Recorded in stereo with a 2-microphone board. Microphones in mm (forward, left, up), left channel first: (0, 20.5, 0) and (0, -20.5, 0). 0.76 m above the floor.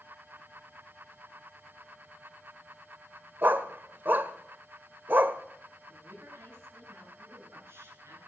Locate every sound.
3.4 s a dog barking: 50° right (ahead or behind), 1.3 m
5.9 s a woman speaking: 85° right, 9.5 m